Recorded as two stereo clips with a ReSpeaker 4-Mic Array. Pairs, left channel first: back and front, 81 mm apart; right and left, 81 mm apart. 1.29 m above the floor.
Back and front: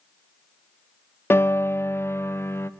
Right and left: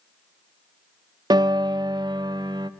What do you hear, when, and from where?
1.3 s a piano: 120° left, 0.7 m